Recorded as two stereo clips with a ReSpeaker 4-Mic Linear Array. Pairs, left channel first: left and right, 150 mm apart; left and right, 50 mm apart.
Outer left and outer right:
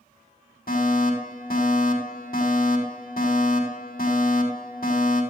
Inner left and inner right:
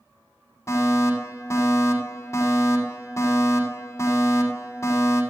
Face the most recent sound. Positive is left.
turn(degrees=75)  # may be behind; listen again after turning